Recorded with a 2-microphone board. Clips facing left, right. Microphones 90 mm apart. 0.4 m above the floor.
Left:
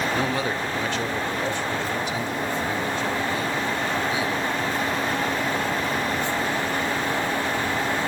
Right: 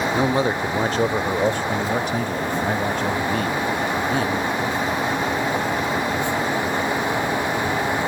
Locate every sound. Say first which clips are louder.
0.1 s a man speaking: right 5 dB; 20° right (ahead or behind), 0.8 m; by 4.5 s 55° right (ahead or behind), 3 m